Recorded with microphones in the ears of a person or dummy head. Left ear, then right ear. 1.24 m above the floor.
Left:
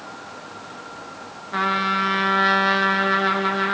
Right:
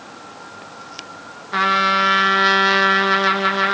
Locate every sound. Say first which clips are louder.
1.5 s a trumpet: right 5 dB; 25° right (ahead or behind), 0.9 m